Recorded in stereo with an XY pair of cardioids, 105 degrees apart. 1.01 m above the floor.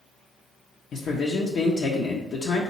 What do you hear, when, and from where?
0.9 s a man speaking: 60° left, 0.6 m